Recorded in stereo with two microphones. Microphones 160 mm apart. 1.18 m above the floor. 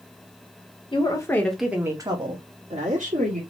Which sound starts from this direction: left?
A woman speaking, at 0.9 s.